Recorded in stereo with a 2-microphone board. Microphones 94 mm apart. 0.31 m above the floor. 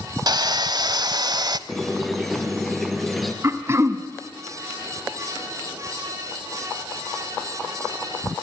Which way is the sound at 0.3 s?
45° right (ahead or behind).